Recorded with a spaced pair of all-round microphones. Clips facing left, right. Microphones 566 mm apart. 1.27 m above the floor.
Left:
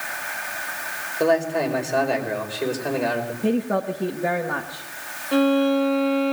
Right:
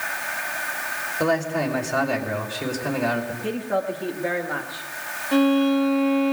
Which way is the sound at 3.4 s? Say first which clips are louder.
Left 6 dB; 60° left (ahead or behind).